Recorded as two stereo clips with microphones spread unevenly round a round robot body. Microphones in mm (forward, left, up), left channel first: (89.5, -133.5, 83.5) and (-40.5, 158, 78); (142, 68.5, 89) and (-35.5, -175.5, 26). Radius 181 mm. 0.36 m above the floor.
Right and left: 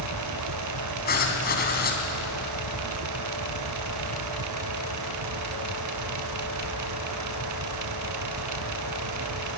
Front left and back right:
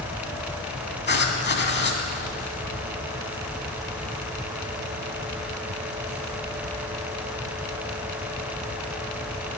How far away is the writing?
About 3 m.